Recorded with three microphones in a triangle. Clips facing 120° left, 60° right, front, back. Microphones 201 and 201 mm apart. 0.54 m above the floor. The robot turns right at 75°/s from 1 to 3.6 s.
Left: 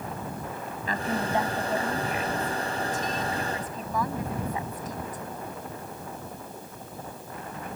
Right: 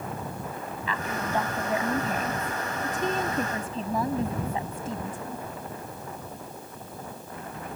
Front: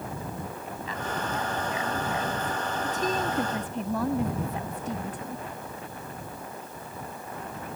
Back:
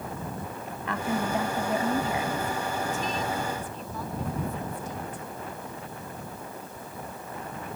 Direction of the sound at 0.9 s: 165° left.